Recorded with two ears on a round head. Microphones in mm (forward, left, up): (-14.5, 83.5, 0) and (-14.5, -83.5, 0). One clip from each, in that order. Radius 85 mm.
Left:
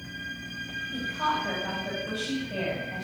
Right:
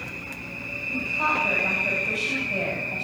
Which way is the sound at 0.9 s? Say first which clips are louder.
Right 5 dB; 20° right (ahead or behind).